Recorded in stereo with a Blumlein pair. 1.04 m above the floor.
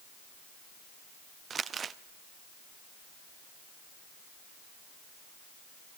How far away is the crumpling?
About 0.7 m.